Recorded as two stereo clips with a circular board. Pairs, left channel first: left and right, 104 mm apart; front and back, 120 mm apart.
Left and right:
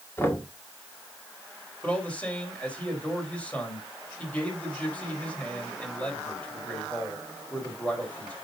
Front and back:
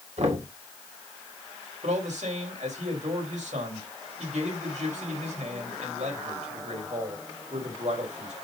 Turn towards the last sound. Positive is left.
turn(degrees=165)